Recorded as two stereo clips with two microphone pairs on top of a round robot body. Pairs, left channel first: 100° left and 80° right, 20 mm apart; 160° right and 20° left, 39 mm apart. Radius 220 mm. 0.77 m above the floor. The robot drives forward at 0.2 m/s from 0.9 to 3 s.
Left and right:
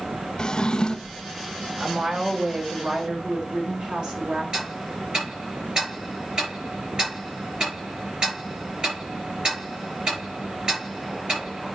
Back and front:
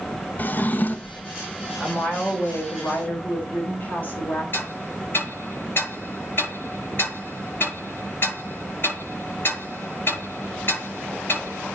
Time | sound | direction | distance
0.4 | a drawer | 155° left | 0.6 m
1.8 | a woman speaking | 120° right | 3.5 m
4.5 | ticking | 135° right | 7.5 m